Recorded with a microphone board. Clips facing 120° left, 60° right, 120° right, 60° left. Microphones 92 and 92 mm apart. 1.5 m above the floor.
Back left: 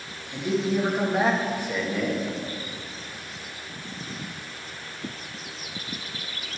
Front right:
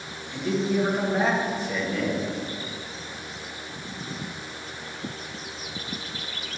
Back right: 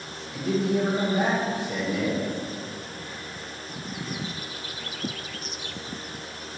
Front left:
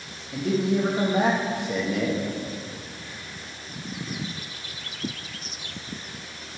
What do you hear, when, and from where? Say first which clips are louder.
0.3 s a man speaking: even, front left 1 dB; 40° left, 1.8 m